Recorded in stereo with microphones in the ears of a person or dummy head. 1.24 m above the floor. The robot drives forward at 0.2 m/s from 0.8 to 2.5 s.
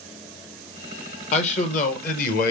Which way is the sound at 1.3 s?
40° left (ahead or behind).